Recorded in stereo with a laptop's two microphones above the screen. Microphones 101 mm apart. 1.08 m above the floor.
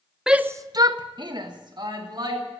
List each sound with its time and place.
0.3 s a shout: 5° right (ahead or behind), 0.7 m; by 2.4 s 45° right (ahead or behind), 3 m